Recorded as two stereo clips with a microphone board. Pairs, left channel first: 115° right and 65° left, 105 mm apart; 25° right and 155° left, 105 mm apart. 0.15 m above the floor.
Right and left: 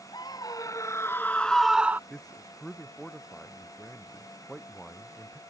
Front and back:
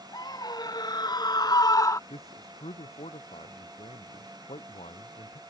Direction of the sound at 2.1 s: 30° right.